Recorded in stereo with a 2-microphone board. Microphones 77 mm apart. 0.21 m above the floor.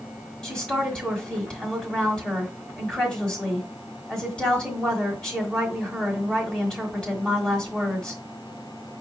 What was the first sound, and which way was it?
A woman speaking, 10° left (ahead or behind).